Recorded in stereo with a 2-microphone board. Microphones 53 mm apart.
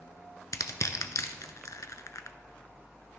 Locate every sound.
0.5 s crushing: 85° left, 0.6 m